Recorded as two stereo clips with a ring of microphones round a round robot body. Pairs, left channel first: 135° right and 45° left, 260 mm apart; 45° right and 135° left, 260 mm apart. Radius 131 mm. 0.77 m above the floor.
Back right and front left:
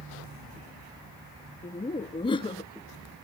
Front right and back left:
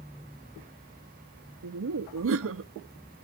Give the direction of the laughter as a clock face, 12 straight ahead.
7 o'clock.